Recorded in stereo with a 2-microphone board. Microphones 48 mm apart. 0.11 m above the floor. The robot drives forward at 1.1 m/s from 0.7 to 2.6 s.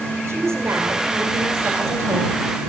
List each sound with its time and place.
0.3 s a woman speaking: 75° right (ahead or behind), 5.5 m; by 2.4 s 60° right (ahead or behind), 6 m